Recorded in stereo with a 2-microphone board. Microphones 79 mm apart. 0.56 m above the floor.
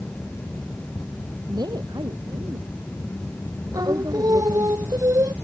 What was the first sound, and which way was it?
A woman speaking, 60° right (ahead or behind).